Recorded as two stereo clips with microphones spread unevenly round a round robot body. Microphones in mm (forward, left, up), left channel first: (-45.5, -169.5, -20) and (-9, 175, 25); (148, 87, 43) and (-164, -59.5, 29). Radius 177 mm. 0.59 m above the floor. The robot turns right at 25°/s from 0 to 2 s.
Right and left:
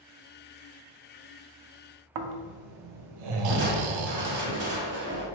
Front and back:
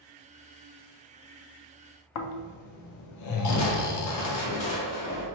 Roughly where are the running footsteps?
I don't hear running footsteps.